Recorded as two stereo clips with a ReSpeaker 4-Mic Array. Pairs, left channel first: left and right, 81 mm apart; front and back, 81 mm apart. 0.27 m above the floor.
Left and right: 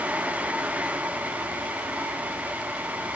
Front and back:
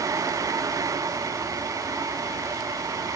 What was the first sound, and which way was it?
Only background noise.